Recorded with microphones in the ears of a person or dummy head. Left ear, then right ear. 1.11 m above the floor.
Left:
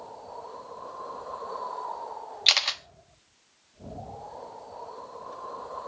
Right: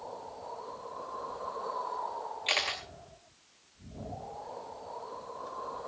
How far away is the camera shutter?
About 0.8 m.